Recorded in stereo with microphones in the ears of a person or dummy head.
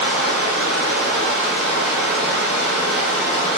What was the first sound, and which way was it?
Running water, centre (ahead or behind).